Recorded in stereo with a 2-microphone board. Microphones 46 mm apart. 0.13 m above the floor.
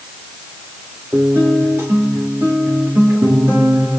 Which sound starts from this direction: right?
A guitar, at 1.1 s.